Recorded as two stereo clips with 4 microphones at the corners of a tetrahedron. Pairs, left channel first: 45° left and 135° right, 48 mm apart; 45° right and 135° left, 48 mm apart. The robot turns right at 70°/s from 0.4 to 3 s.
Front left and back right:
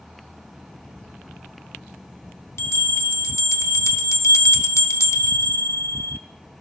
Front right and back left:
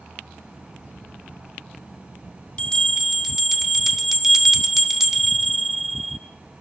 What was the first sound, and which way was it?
A bell, 20° left.